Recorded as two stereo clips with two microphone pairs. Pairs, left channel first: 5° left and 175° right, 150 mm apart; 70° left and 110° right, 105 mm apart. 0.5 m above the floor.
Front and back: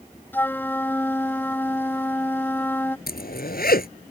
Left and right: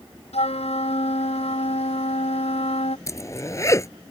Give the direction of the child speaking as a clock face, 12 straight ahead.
No child speaking in this recording.